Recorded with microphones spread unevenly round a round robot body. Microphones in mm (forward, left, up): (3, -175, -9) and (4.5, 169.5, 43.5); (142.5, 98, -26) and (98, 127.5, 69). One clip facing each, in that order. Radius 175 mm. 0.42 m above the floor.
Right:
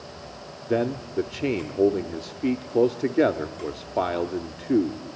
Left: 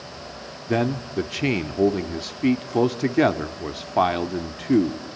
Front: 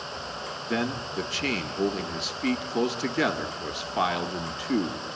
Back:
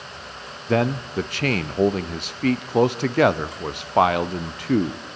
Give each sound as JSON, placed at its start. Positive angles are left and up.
{"t": 0.7, "sound": "a man speaking", "azimuth_deg": 45, "distance_m": 0.8}